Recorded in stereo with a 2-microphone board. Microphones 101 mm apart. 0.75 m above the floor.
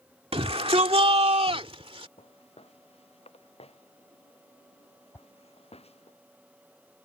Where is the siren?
I don't hear a siren.